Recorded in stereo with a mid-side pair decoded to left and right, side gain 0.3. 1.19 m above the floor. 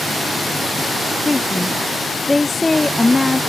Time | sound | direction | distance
1.2 | a woman speaking | 20° left | ?